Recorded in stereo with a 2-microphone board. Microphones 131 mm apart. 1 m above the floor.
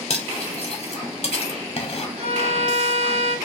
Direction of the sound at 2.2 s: 55° right (ahead or behind).